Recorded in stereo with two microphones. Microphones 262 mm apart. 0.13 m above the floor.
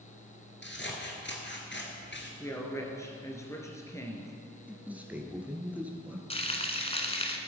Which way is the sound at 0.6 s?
45° left (ahead or behind).